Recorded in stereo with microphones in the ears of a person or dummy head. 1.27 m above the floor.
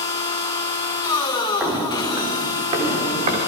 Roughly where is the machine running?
Centre.